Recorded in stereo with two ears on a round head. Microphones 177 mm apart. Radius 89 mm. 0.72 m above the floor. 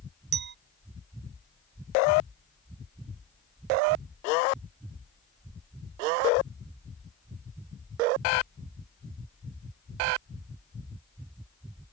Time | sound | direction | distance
0.3 | a clink | 55° right (ahead or behind) | ?